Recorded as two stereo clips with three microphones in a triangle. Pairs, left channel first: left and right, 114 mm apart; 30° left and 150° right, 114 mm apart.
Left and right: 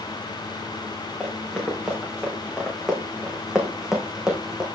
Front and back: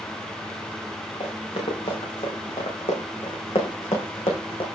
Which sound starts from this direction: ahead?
Running footsteps, at 1.2 s.